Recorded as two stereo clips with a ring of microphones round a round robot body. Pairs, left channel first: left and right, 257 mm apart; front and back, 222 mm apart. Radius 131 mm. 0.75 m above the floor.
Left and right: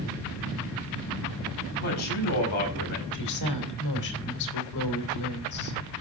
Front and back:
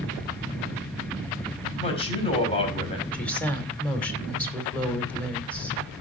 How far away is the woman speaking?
About 2.5 m.